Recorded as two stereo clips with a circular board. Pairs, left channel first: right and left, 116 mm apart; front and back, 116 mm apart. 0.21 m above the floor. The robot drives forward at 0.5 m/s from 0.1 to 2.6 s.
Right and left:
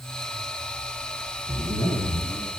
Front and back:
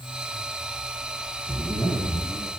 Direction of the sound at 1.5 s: 115° left.